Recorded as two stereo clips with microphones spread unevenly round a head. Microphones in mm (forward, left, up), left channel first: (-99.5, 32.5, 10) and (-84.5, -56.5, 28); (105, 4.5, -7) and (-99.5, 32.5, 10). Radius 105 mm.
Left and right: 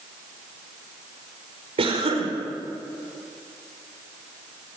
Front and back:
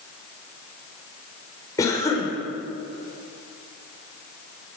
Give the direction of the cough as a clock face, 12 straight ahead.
3 o'clock.